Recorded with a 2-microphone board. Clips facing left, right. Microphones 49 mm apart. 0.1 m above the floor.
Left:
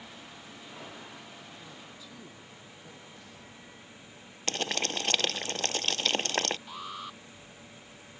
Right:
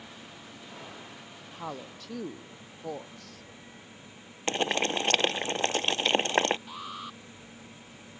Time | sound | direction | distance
1.5 | a woman speaking | 65° right (ahead or behind) | ?
4.5 | boiling | 20° right (ahead or behind) | ?
6.7 | an alarm | centre (ahead or behind) | ?